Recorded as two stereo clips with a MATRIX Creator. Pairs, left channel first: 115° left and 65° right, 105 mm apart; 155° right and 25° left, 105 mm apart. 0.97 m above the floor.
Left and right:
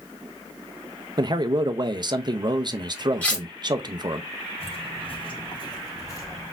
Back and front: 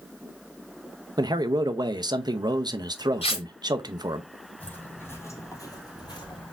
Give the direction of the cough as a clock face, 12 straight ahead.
No cough in this recording.